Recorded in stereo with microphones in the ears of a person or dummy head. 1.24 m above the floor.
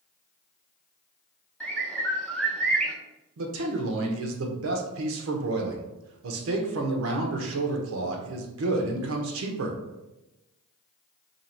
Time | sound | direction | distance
1.6 | a bird | 5° left (ahead or behind) | 0.8 m
3.4 | a man speaking | 70° right (ahead or behind) | 0.9 m